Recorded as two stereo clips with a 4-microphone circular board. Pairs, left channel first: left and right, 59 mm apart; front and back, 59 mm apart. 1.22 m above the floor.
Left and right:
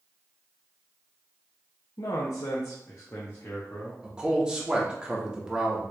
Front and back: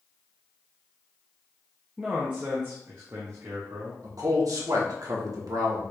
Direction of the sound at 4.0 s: 165° right.